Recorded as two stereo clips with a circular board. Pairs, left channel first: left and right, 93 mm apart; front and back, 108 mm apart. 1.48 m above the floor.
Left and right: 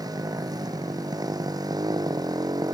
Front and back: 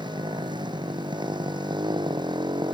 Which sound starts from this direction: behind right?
A motorcycle, at 0.0 s.